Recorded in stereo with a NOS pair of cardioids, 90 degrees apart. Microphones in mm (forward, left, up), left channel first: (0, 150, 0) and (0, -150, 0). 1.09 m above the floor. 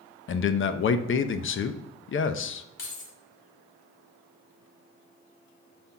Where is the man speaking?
40° left, 0.8 m.